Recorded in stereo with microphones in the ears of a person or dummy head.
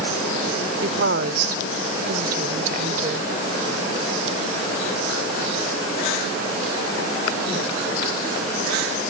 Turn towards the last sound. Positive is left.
turn(degrees=-45)  # may be behind; listen again after turning